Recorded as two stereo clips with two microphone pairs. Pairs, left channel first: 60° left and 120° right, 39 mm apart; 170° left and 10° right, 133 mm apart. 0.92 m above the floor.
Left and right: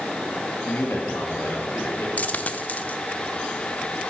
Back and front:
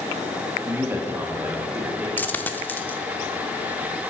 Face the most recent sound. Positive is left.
turn(degrees=95)